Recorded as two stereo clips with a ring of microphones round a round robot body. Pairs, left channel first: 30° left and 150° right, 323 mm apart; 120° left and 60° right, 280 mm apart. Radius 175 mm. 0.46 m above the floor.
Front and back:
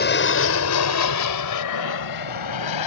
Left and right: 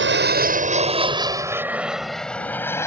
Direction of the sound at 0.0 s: 20° right.